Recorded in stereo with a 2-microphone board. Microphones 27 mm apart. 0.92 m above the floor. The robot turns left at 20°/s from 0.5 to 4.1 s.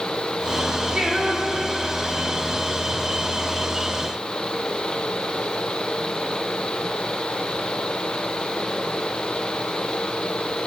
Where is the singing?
40° right (ahead or behind), 1.2 m; by 2.4 s 10° right (ahead or behind), 1.2 m.